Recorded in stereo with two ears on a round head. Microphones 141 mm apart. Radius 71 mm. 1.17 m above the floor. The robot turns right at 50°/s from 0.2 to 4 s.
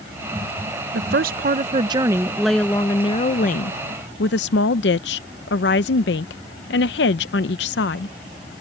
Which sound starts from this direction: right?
A woman speaking, at 0.9 s.